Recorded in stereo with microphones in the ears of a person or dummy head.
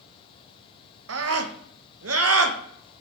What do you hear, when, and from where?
1.1 s a scream: 70° right (ahead or behind), 1.0 m